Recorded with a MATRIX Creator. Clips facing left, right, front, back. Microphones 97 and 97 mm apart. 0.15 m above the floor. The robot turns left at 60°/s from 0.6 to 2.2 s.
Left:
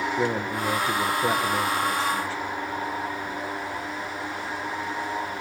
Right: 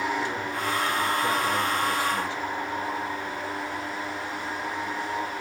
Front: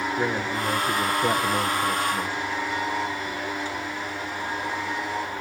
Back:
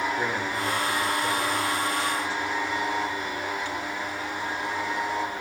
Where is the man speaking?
70° left, 1.9 m; by 2.4 s 25° right, 1.9 m.